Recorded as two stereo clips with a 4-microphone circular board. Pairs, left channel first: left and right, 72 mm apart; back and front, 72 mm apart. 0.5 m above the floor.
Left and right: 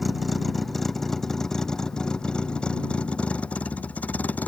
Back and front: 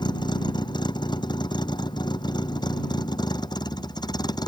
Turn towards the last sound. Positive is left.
turn(degrees=160)